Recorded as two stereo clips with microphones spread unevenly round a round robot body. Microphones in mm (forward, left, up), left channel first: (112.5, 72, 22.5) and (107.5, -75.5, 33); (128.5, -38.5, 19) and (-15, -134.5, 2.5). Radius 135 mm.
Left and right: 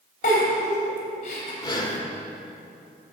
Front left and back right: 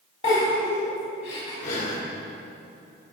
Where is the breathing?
60° left, 1.5 m.